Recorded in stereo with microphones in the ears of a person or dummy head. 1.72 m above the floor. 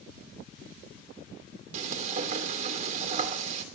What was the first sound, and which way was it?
Frying, 40° right (ahead or behind).